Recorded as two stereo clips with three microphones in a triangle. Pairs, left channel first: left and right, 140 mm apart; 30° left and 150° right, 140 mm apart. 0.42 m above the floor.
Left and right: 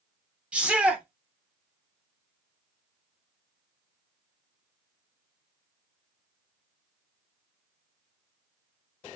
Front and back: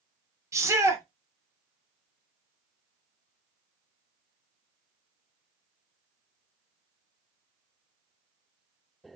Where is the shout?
160° right, 0.8 m.